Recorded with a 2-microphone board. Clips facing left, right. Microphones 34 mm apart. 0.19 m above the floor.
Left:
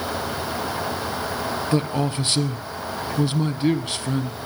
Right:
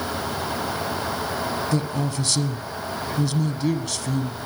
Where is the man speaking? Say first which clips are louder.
Left 3 dB; 30° left (ahead or behind), 1.2 m.